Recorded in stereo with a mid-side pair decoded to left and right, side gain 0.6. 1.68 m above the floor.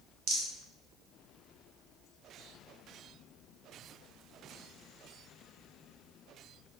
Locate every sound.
0.3 s a rattle: 60° right, 1.0 m